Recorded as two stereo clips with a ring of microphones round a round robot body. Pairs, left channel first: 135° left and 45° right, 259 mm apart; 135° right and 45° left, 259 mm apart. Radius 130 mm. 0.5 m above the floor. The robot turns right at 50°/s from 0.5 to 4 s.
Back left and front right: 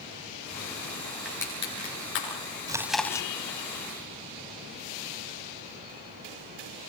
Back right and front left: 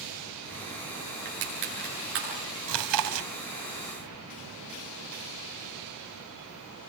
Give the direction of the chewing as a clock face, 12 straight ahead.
11 o'clock.